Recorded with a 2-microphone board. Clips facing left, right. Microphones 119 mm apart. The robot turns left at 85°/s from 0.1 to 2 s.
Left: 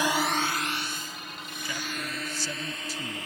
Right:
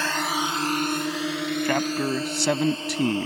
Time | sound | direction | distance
0.0 | a drone | 15° left (ahead or behind) | ?
1.6 | a man speaking | 65° right (ahead or behind) | ?